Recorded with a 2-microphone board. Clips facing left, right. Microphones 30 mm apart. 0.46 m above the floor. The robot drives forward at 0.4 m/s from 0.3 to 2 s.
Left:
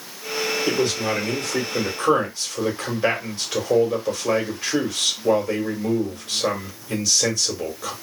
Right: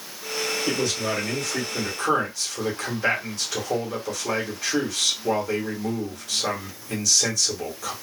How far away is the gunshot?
I don't hear a gunshot.